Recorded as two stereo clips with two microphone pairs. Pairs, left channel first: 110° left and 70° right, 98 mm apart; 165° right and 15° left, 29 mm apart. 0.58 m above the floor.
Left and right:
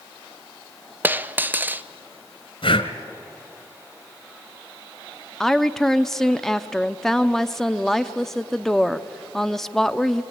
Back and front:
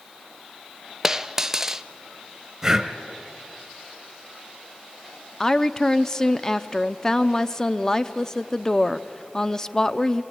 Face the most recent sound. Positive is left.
turn(degrees=-165)